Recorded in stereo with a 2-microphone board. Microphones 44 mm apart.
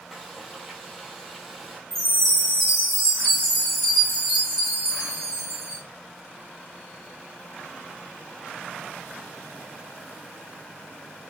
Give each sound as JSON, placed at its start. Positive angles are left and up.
{"t": 0.1, "sound": "frying", "side_deg": 5, "distance_m": 3.0}
{"t": 1.9, "sound": "a chime", "side_deg": 15, "distance_m": 3.0}